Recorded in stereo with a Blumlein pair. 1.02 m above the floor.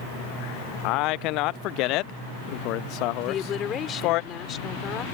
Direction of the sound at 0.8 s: 40° left.